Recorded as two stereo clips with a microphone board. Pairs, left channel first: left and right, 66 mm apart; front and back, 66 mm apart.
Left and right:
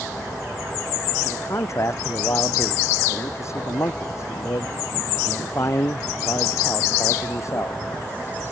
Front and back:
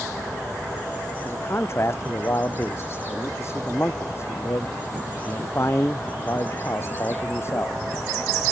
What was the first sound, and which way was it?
A man speaking, 50° left.